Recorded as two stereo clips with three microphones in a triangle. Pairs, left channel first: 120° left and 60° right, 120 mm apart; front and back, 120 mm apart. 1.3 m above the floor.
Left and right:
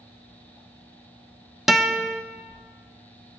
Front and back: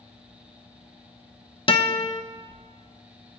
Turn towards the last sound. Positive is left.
turn(degrees=25)